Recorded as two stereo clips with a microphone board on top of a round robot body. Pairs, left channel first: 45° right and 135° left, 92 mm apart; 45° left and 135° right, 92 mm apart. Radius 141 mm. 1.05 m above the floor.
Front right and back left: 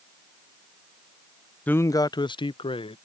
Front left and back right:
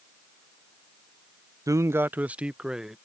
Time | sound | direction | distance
1.7 | a man speaking | 110° right | ?